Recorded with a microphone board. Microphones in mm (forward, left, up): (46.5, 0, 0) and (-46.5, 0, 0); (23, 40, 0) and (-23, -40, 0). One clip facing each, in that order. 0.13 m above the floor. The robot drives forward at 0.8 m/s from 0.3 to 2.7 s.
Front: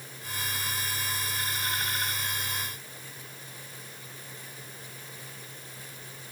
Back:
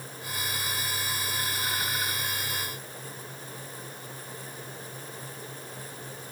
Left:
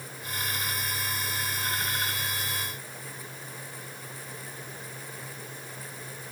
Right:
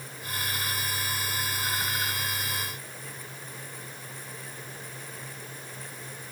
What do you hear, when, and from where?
Only background noise.